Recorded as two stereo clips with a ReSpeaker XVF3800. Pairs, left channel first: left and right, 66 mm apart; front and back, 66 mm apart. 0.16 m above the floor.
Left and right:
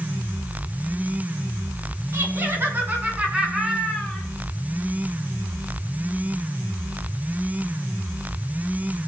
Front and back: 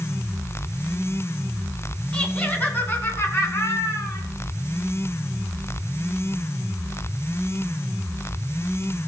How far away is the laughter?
About 2.0 m.